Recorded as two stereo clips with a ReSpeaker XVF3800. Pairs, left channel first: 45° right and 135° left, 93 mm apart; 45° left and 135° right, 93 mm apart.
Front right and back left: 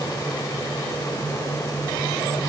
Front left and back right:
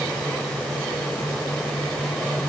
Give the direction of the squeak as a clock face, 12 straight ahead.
No squeak in this recording.